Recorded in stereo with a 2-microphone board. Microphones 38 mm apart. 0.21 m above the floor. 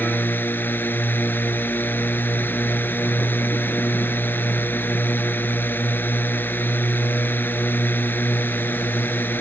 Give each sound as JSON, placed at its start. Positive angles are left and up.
{"t": 0.0, "sound": "a drone", "side_deg": 65}